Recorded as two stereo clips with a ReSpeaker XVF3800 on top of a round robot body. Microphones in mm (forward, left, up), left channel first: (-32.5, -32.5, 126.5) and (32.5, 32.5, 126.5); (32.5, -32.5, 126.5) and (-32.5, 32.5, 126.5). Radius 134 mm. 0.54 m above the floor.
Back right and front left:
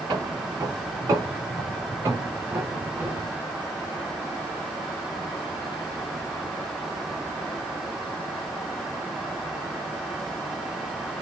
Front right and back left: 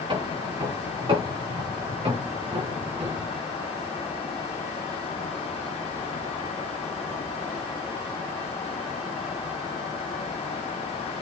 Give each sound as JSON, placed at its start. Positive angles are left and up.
{"t": 0.1, "sound": "footsteps", "azimuth_deg": 100, "distance_m": 7.5}